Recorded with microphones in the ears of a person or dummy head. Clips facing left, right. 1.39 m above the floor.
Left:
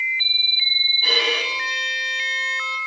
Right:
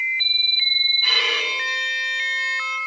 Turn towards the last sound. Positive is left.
turn(degrees=30)  # may be behind; listen again after turning